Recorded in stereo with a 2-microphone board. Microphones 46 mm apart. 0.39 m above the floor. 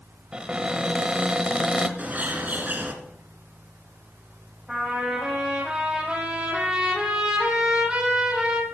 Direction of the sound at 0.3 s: 20° right (ahead or behind).